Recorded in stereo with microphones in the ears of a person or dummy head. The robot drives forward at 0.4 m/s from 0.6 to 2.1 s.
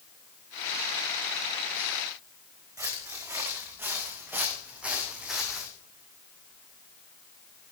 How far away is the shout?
No shout in this recording.